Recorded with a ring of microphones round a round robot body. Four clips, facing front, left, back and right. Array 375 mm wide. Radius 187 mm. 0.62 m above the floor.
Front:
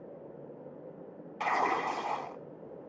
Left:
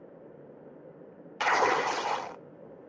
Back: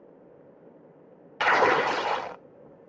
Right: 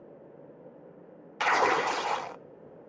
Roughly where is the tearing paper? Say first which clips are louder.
Even, back 8 dB; behind.